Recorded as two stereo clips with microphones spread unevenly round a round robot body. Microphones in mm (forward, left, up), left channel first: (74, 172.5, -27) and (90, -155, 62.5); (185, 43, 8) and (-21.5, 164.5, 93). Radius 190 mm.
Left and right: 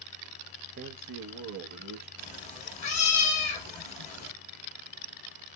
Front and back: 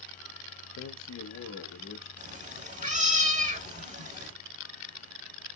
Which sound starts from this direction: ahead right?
A man speaking, at 0.8 s.